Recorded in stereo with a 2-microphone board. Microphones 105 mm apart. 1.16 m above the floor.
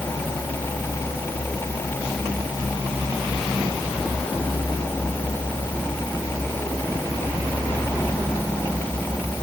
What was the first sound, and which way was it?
Only background noise.